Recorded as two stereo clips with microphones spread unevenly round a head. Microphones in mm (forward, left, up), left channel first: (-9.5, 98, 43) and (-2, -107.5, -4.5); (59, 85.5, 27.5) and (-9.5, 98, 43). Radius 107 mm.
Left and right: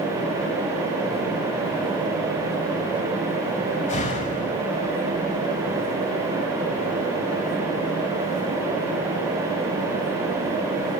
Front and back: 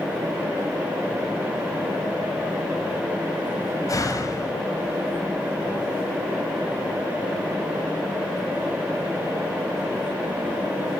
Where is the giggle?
I don't hear a giggle.